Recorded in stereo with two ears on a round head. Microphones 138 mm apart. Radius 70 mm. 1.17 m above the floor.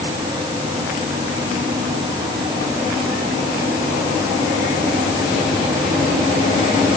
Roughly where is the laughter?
No laughter in this recording.